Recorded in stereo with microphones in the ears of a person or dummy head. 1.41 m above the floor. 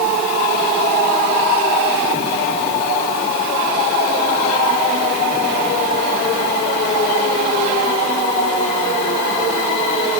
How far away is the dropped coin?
No dropped coin in this recording.